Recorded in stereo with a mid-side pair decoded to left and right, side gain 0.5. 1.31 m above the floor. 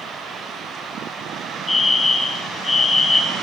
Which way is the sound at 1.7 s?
20° left.